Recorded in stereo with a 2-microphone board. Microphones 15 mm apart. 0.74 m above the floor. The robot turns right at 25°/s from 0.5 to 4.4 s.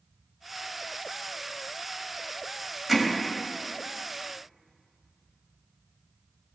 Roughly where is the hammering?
Centre.